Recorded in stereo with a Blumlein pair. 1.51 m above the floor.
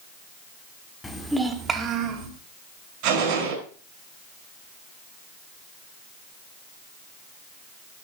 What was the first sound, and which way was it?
A child speaking, 10° left.